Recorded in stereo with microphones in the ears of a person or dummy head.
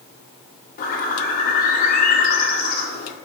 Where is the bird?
50° left (ahead or behind), 1.9 m.